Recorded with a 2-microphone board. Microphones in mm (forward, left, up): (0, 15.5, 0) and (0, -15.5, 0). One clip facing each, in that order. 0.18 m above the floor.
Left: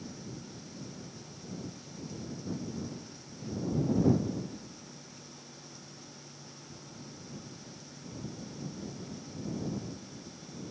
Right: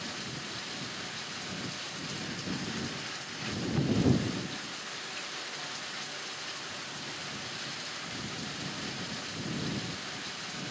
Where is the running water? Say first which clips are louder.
Right 6 dB; 85° right.